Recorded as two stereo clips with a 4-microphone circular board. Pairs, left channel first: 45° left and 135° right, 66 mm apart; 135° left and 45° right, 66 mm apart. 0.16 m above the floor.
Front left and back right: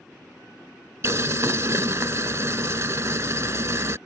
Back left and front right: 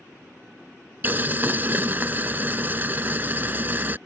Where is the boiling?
100° right.